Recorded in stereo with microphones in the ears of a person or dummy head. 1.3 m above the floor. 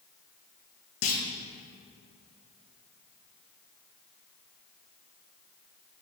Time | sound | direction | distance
1.0 | a clunk | 75° left (ahead or behind) | 1.4 m